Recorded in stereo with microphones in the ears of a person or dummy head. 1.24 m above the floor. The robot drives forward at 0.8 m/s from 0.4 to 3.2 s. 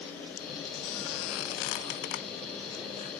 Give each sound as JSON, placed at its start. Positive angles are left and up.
{"t": 0.8, "sound": "a squeak", "side_deg": 65, "distance_m": 1.3}